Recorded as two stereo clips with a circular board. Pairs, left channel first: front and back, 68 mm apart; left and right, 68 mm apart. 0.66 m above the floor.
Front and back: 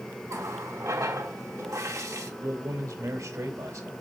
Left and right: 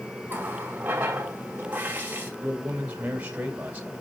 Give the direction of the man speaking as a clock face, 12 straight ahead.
5 o'clock.